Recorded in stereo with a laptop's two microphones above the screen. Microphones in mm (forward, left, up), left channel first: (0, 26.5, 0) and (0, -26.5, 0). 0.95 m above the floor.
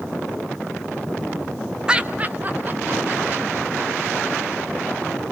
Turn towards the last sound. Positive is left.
turn(degrees=-50)  # may be behind; listen again after turning